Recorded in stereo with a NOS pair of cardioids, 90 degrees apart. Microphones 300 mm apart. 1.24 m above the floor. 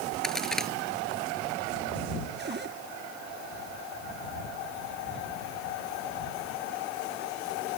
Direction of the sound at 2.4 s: 35° right.